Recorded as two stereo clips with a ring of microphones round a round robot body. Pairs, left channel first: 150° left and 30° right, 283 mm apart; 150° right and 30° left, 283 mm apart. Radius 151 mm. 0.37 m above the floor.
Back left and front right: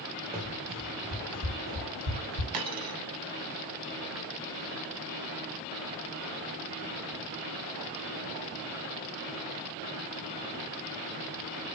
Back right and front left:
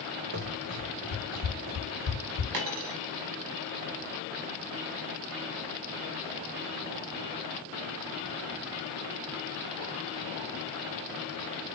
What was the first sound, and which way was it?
Running footsteps, 30° left.